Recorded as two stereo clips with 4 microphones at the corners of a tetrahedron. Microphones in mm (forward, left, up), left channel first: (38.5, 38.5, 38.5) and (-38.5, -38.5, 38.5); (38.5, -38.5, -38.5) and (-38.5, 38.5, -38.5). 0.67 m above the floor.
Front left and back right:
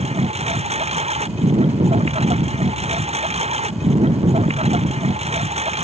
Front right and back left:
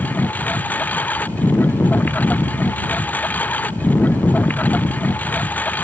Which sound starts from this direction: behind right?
A lawn mower, at 0.0 s.